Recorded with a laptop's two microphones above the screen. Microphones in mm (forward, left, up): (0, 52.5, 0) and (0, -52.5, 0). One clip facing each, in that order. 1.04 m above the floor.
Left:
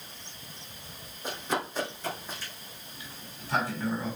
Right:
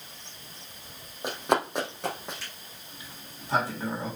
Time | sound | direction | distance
1.2 | running footsteps | 65° right (ahead or behind) | 2.5 m
2.9 | a sliding door | 25° right (ahead or behind) | 2.0 m